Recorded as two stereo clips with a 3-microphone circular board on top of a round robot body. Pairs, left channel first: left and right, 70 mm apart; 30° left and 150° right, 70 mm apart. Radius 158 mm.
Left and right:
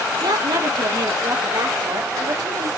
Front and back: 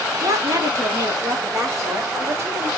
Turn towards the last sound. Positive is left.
turn(degrees=-105)